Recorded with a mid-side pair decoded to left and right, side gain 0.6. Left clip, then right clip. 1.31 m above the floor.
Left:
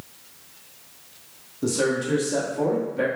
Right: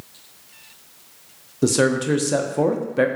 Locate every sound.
1.6 s a man speaking: 50° right, 0.6 m